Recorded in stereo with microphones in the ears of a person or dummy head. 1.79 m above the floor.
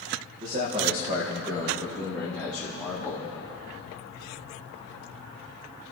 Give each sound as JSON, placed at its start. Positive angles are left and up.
{"t": 0.4, "sound": "a man speaking", "side_deg": -40, "distance_m": 1.9}